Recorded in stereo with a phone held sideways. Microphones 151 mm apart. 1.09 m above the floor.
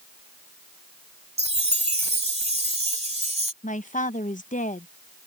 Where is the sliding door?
No sliding door in this recording.